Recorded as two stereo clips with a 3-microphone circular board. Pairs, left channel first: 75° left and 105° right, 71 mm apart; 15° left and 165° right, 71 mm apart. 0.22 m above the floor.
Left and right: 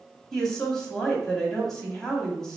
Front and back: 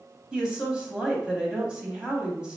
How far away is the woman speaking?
About 1.1 m.